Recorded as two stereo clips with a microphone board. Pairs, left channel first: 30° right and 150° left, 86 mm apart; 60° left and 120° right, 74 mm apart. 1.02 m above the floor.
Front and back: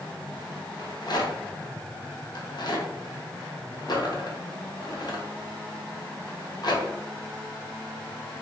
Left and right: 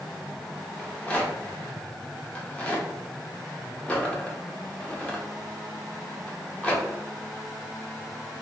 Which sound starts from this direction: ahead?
A rattle, at 0.8 s.